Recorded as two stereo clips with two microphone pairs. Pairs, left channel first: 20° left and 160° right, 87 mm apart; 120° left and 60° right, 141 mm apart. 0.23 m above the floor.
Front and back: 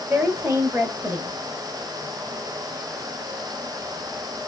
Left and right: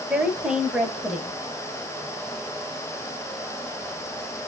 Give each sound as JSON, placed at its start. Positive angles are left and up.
{"t": 0.1, "sound": "a woman speaking", "azimuth_deg": -135, "distance_m": 1.0}